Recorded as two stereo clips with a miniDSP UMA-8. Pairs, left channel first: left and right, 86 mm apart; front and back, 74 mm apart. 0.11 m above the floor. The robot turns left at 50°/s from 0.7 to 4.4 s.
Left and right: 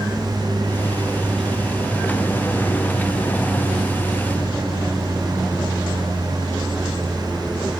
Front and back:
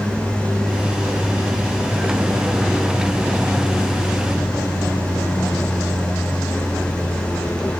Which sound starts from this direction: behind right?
An aircraft, at 0.0 s.